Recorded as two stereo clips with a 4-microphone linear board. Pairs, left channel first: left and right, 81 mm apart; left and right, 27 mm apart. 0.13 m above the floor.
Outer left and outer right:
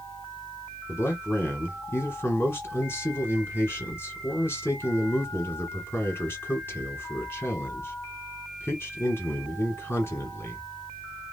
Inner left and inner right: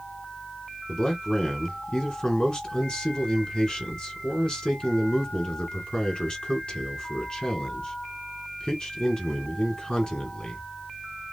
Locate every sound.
0.9 s a man speaking: 30° left (ahead or behind), 1.8 m